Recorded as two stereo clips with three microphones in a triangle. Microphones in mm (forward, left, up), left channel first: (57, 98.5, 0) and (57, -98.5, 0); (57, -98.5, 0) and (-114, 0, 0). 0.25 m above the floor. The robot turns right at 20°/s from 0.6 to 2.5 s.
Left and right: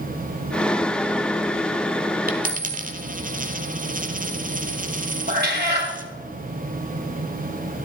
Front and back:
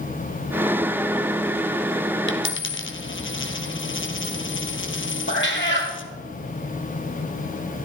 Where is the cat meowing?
55° right, 2.5 m.